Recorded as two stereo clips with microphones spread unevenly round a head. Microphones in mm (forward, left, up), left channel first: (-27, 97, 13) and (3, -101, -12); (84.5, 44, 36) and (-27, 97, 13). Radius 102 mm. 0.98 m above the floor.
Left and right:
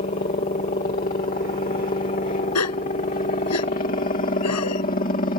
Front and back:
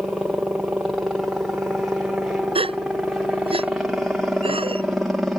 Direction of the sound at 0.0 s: 80° left.